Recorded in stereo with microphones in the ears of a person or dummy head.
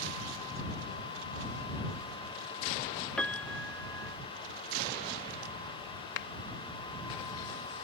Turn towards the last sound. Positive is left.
turn(degrees=70)  # may be behind; listen again after turning